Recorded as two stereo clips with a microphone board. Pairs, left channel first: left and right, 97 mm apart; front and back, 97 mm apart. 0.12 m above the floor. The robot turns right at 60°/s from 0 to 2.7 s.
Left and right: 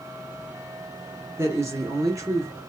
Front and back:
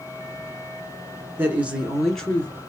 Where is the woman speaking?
130° right, 1.2 m; by 2.6 s 55° right, 1.2 m.